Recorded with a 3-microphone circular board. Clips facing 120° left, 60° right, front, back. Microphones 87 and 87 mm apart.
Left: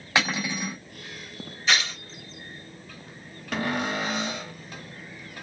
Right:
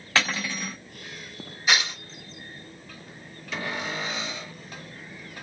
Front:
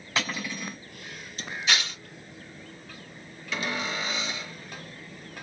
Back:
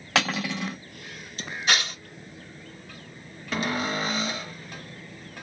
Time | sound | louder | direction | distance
0.1 | cutlery clinking | left 1 dB, back 5 dB | 165° right | 1.1 m
1.7 | tearing paper | right 1 dB, back 2 dB | 140° right | 1.8 m
3.5 | a cupboard door | left 4 dB, back 4 dB | 140° left | 1.2 m